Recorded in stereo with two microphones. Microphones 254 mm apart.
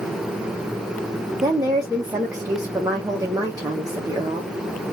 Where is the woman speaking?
15° right (ahead or behind), 1.1 m.